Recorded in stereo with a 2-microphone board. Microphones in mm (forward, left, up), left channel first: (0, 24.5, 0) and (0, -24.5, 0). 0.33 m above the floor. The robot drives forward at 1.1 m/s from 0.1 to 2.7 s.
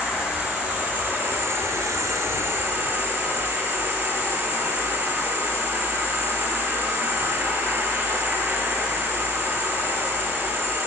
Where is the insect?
20° right (ahead or behind), 2.5 m; by 10.9 s 50° right (ahead or behind), 1.1 m.